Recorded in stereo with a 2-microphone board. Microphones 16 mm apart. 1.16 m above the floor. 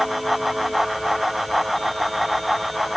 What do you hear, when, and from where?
Only background noise.